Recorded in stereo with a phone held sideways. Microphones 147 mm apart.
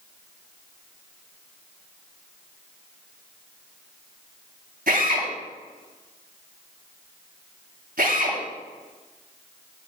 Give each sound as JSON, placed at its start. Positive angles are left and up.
{"t": 4.9, "sound": "a drill", "side_deg": -80, "distance_m": 4.0}